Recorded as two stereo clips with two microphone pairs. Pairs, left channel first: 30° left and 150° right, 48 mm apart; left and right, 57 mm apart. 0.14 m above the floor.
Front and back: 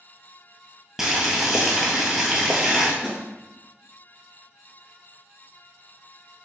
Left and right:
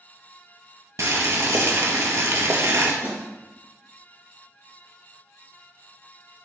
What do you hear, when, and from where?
1.0 s boiling: 70° right, 0.9 m
3.0 s a snare drum: 125° left, 1.1 m